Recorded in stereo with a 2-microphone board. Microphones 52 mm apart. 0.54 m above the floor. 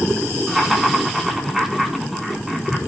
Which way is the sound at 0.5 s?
5° right (ahead or behind).